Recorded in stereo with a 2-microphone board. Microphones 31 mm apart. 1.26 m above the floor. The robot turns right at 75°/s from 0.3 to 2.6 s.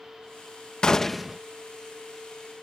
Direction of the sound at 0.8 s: 155° left.